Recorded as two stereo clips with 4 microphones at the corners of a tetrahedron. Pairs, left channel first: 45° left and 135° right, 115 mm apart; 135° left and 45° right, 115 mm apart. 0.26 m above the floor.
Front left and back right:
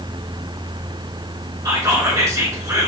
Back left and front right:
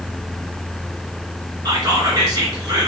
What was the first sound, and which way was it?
Whispering, 90° right.